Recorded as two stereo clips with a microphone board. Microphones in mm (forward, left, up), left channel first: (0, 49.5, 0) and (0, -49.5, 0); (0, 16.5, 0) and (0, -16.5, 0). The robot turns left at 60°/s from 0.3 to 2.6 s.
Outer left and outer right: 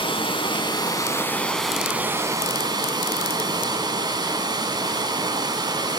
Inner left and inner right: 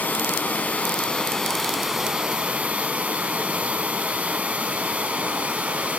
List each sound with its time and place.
0.0 s running water: 85° left, 1.8 m; by 6.0 s 55° right, 1.8 m